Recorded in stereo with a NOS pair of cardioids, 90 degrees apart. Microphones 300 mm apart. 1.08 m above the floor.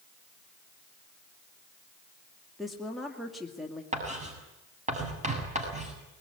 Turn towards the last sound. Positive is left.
turn(degrees=-20)